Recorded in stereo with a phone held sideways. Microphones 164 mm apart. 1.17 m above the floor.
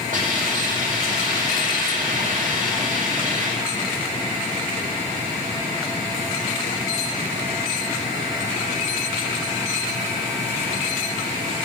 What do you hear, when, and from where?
0.1 s a hiss: 60° right (ahead or behind), 7.5 m